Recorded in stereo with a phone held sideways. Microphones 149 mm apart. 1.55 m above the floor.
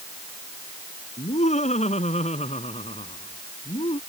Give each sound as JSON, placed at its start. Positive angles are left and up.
{"t": 1.2, "sound": "laughter", "side_deg": 50}